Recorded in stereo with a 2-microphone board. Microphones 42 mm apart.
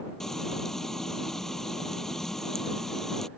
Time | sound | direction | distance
0.2 | frying | 10° left (ahead or behind) | ?